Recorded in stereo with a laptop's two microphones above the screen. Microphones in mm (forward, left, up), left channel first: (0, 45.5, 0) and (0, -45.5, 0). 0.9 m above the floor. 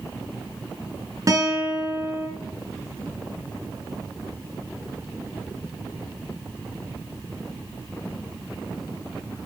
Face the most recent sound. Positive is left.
turn(degrees=-35)  # may be behind; listen again after turning